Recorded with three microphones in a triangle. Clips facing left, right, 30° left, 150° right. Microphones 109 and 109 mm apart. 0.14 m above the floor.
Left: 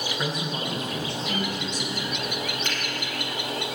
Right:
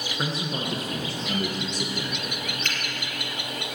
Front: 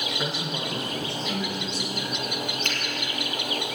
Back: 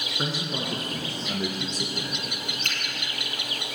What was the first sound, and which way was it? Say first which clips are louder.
A man speaking: right 2 dB, back 4 dB; 140° right.